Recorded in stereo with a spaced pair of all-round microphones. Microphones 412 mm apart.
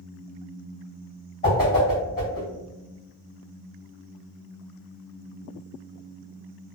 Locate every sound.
1.4 s a whoosh: 25° left (ahead or behind), 1.6 m